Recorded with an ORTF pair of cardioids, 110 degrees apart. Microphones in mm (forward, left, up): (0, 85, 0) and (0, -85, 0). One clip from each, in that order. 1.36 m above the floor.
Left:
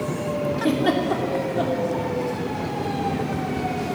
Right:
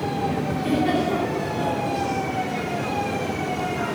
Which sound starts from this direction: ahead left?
A giggle, at 0.6 s.